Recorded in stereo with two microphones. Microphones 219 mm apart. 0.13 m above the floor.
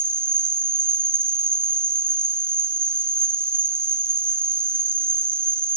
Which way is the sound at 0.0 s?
10° right (ahead or behind).